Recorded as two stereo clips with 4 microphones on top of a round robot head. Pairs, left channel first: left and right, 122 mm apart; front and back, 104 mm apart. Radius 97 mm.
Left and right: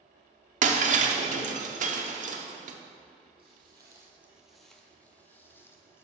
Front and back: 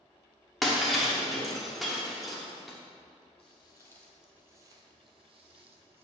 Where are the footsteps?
35° right, 0.8 m; by 6.0 s 160° left, 1.3 m.